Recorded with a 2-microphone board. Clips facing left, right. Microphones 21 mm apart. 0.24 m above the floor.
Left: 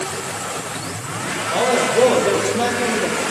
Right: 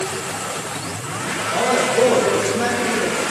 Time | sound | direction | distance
1.5 | a man speaking | 80° left | 8 m